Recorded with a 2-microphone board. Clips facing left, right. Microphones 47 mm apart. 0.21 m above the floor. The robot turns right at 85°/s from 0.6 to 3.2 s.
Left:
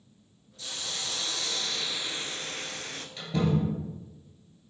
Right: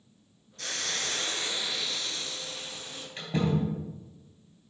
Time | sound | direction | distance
0.6 | a hiss | 100° right | 0.6 m
3.2 | a door slam | 30° right (ahead or behind) | 3 m